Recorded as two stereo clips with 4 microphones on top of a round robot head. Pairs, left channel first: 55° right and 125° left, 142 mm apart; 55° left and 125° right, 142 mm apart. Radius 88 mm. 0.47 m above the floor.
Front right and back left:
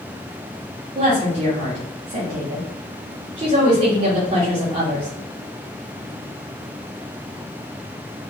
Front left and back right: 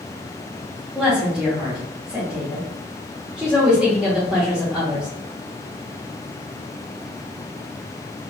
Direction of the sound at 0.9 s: 155° left.